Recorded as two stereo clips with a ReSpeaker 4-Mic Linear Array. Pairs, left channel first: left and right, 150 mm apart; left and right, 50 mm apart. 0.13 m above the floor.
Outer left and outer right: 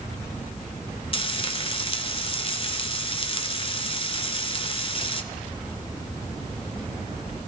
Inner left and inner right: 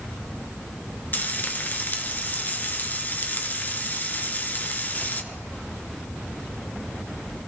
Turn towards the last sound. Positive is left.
turn(degrees=40)  # may be behind; listen again after turning